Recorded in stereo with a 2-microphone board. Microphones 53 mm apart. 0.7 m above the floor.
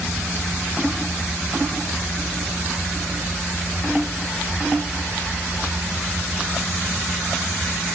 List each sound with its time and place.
Only background noise.